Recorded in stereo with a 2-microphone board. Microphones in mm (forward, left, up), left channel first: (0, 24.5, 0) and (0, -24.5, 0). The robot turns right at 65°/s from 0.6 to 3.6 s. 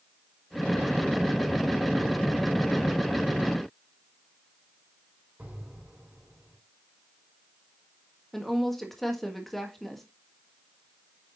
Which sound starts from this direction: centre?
A woman speaking, at 8.3 s.